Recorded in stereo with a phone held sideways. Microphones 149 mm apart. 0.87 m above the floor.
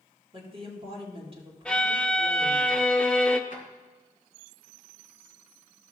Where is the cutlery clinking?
I don't hear cutlery clinking.